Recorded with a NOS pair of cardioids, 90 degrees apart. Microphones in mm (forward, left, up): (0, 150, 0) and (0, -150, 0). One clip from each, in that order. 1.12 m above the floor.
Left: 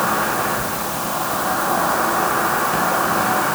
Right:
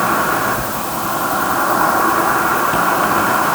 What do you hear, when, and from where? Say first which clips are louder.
0.0 s an insect: right 4 dB; 45° right, 4.5 m